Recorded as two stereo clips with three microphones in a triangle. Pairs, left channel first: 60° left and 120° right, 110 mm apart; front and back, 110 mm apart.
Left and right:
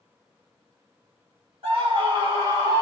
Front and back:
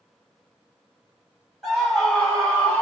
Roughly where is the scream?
Right.